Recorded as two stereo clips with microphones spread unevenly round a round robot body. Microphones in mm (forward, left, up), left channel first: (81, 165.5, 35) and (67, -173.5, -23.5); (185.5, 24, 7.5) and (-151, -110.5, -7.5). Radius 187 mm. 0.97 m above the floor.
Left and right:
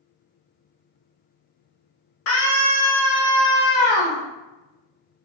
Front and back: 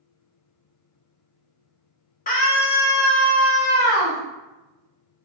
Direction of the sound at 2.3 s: 70° left.